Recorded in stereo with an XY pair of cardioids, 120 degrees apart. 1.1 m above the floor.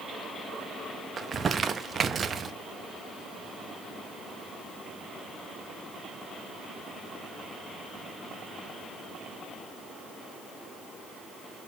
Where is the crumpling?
35° right, 1.4 m.